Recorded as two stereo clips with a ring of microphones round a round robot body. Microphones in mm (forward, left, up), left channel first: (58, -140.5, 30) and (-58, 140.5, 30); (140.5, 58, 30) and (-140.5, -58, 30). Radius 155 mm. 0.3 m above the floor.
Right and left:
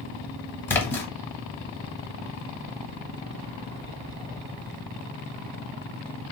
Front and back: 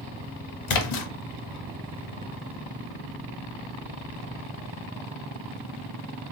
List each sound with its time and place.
0.7 s a splash: 15° left, 0.7 m